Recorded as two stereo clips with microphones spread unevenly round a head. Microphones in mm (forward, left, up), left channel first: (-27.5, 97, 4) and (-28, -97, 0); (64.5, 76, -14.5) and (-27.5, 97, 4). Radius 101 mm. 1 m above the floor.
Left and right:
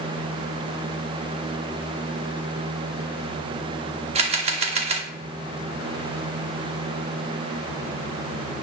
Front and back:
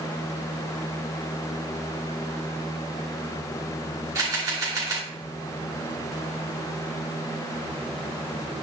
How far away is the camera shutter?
About 0.7 m.